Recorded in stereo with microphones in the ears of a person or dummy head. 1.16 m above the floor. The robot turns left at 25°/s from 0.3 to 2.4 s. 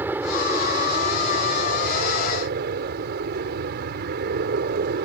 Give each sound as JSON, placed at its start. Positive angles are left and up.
{"t": 0.0, "sound": "an aircraft", "azimuth_deg": -15}